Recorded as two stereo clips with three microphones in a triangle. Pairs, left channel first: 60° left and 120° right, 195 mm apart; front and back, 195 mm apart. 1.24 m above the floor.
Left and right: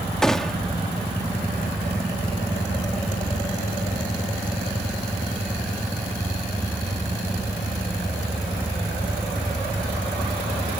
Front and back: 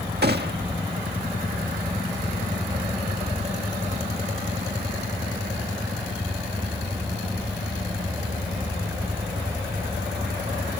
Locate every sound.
0.2 s a gunshot: 145° left